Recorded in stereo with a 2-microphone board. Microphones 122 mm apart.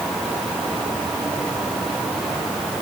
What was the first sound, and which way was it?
Only background noise.